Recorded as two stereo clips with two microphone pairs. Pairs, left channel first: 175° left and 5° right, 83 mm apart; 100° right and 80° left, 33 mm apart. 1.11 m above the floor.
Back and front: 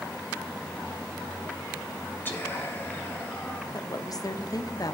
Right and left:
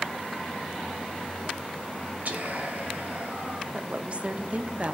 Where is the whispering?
110° left, 1.6 m.